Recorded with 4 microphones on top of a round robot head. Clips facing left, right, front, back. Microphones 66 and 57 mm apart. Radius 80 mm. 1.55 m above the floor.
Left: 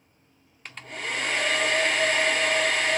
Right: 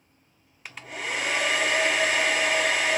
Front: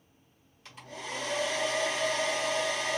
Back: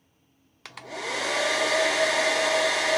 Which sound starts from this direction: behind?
A hair dryer, at 0.7 s.